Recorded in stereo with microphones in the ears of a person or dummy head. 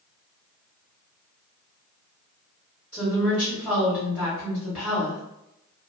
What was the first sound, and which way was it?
A woman speaking, 5° left (ahead or behind).